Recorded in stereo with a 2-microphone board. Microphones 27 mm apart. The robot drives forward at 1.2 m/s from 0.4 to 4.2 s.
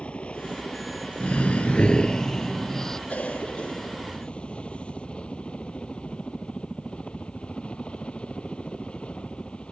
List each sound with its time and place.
0.0 s a helicopter: 40° left (ahead or behind); by 9.7 s 35° left (ahead or behind)
1.2 s breathing: 40° left (ahead or behind); by 3.0 s 10° left (ahead or behind)
3.1 s a cough: 55° left (ahead or behind); by 5.1 s 40° left (ahead or behind)